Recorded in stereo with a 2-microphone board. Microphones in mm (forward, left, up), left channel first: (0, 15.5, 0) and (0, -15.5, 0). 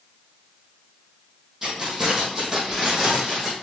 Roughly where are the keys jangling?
Centre.